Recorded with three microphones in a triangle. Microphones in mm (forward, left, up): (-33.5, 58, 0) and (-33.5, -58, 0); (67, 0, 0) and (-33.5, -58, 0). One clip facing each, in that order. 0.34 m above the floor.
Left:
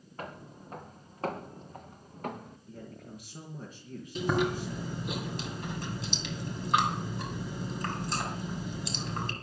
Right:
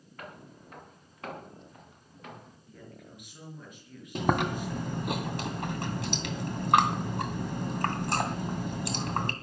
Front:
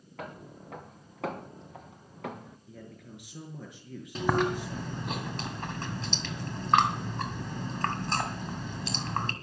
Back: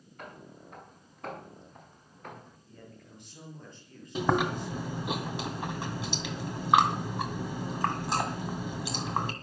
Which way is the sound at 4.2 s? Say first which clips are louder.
Right 1 dB, even; 70° right.